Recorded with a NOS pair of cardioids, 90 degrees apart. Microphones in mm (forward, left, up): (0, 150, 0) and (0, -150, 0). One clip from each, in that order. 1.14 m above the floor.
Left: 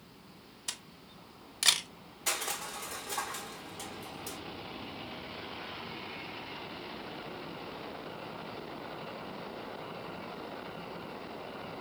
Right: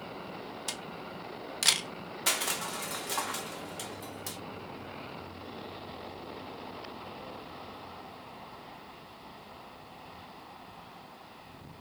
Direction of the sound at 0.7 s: 10° right.